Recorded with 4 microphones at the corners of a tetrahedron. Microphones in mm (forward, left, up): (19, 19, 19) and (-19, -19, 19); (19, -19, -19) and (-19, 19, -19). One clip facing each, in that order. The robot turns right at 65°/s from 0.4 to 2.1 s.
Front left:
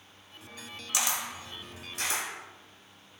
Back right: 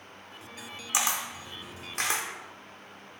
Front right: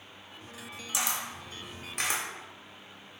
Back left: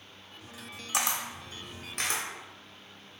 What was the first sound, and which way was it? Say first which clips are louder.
A camera shutter: back right 2 dB, back left 2 dB; 160° left.